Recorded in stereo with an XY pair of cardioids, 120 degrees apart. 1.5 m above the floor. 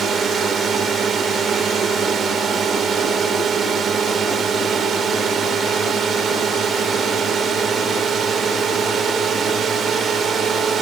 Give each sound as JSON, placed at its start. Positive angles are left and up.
{"t": 0.0, "sound": "a drone", "azimuth_deg": -45}